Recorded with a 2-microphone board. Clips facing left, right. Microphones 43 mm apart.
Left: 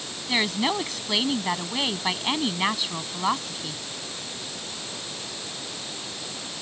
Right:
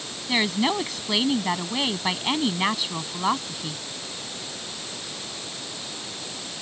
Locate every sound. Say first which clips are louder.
0.3 s a woman speaking: right 1 dB; centre (ahead or behind)